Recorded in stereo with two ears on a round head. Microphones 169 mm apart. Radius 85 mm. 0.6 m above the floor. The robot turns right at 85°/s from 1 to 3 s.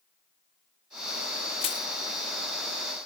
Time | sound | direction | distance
1.6 | crushing | 30° left (ahead or behind) | 0.6 m